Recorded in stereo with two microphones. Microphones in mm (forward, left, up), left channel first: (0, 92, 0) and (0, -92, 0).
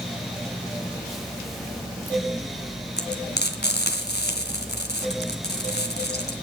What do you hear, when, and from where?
3.0 s frying: 65° left (ahead or behind), 2 m